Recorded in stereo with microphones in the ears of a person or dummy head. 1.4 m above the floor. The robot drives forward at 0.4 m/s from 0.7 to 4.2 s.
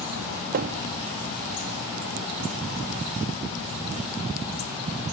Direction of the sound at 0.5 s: 40° right (ahead or behind).